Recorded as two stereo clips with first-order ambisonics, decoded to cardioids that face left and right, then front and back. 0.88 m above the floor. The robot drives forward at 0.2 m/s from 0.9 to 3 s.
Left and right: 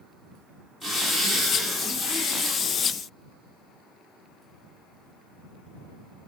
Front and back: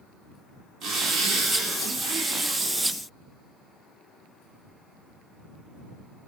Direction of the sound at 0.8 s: 175° right.